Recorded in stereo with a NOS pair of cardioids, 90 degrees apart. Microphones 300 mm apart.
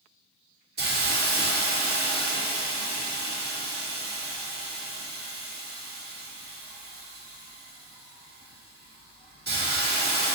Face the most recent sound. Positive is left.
turn(degrees=-35)